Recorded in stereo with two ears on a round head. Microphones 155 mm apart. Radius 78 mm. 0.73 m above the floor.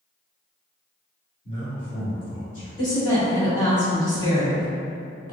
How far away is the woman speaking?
About 1.7 m.